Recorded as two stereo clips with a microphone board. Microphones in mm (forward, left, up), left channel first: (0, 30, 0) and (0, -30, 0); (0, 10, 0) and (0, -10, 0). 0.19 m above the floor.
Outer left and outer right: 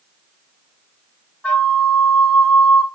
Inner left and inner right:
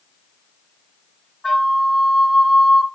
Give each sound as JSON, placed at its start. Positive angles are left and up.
{"t": 1.4, "sound": "a flute", "side_deg": 20, "distance_m": 0.7}